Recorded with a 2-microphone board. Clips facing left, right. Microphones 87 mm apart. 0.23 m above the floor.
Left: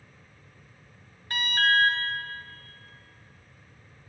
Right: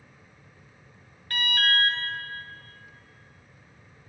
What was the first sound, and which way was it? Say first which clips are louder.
An alarm: left 2 dB; 25° left (ahead or behind).